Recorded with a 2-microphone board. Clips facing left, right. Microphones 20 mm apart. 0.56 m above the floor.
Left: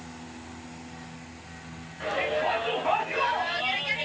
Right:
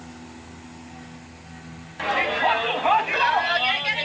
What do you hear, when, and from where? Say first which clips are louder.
2.0 s a shout: right 5 dB; 50° right (ahead or behind), 4.5 m; by 4.1 s 40° right (ahead or behind), 3.5 m